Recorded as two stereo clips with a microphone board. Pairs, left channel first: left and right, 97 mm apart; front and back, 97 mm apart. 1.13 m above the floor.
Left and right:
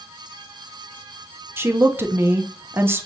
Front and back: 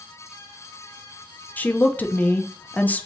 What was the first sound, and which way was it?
A woman speaking, 50° right.